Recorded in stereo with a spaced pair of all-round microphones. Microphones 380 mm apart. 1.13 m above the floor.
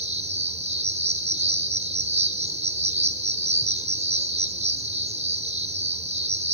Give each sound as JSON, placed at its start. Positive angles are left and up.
{"t": 0.0, "sound": "an insect", "side_deg": -15, "distance_m": 0.9}